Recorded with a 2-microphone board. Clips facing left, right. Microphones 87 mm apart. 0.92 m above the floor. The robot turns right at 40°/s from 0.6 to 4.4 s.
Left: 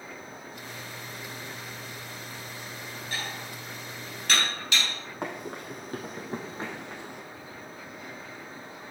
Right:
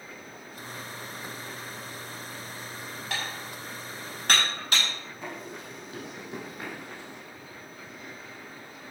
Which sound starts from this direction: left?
Running footsteps, at 5.2 s.